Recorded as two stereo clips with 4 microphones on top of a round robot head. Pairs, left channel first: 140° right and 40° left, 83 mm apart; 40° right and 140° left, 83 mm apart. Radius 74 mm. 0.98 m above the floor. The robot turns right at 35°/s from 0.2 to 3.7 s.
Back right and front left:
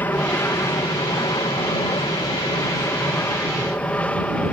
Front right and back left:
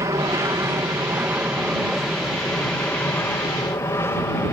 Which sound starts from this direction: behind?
An aircraft, at 0.0 s.